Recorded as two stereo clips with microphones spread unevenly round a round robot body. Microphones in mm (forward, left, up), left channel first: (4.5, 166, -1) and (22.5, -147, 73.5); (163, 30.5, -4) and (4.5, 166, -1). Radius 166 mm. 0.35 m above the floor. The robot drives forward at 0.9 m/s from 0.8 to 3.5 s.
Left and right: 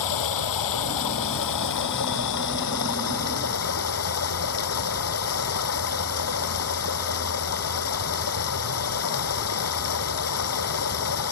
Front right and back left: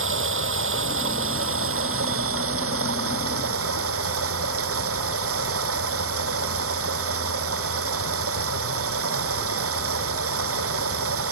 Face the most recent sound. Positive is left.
turn(degrees=140)